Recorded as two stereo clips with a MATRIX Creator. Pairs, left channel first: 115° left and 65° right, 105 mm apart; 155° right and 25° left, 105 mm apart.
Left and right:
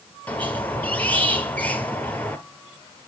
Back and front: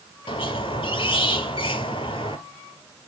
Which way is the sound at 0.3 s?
175° right.